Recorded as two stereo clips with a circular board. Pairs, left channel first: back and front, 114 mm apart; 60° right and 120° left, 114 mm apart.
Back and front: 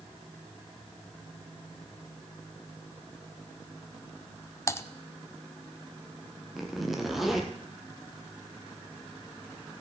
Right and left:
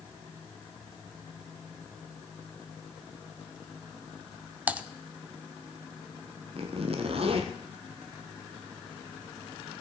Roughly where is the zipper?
Left.